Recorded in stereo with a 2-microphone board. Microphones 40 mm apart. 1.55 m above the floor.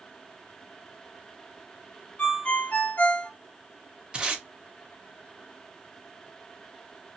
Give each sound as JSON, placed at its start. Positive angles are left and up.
{"t": 2.2, "sound": "a ringtone", "side_deg": 40, "distance_m": 0.7}
{"t": 4.1, "sound": "tape being pulled", "side_deg": -25, "distance_m": 0.8}